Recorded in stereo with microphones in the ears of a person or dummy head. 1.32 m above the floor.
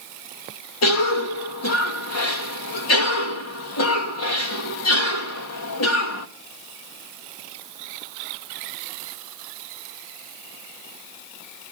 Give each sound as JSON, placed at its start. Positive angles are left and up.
{"t": 0.8, "sound": "a cough", "side_deg": 80, "distance_m": 2.5}